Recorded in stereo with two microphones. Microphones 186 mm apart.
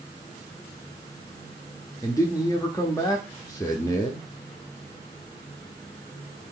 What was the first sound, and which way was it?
A man speaking, 20° left (ahead or behind).